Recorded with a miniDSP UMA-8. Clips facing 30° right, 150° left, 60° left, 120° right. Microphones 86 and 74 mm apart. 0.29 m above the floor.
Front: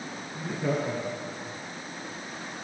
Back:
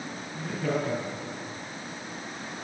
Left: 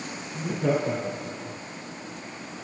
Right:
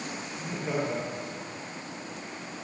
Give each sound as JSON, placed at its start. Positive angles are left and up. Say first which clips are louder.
{"t": 0.3, "sound": "laughter", "louder": "even, left 7 dB", "azimuth_deg": 40, "distance_m": 9.0}